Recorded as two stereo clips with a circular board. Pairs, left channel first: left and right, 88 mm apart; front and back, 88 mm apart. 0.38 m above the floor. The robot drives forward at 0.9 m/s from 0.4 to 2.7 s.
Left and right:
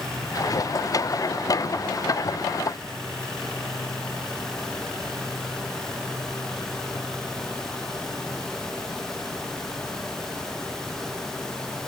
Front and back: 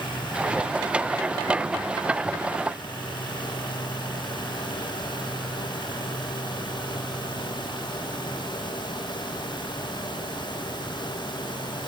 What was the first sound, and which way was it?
Only background noise.